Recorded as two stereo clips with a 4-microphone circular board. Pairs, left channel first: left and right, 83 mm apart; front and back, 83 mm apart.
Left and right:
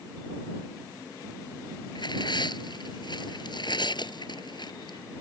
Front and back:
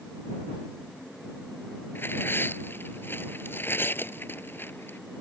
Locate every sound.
1.9 s tearing paper: 65° left